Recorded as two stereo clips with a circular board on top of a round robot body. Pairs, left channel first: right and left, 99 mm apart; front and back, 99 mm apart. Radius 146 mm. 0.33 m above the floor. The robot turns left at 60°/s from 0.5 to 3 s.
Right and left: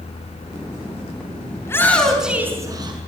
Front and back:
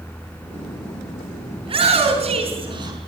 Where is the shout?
150° right, 4.5 m; by 3.0 s 130° left, 4.5 m.